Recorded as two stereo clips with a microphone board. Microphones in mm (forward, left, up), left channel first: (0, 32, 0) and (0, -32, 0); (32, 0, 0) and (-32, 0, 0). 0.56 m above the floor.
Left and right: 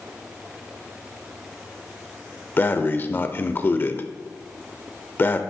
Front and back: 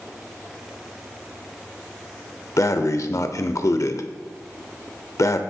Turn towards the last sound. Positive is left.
turn(degrees=35)